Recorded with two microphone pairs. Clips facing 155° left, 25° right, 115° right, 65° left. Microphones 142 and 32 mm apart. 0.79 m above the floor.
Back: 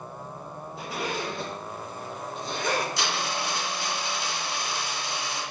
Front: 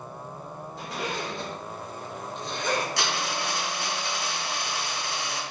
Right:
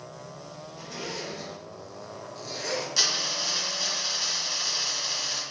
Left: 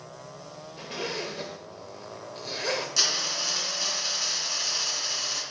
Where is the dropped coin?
40° right, 2.5 m.